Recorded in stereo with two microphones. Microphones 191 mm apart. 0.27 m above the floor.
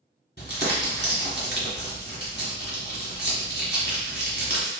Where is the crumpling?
60° left (ahead or behind), 1.9 m.